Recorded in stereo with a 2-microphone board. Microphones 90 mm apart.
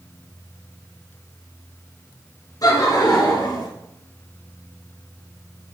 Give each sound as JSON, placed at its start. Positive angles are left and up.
{"t": 2.6, "sound": "laughter", "side_deg": 45, "distance_m": 1.6}